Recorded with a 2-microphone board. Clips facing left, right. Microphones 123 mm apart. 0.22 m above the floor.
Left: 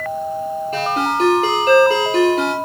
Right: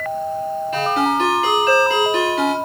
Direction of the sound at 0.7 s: 40° left (ahead or behind).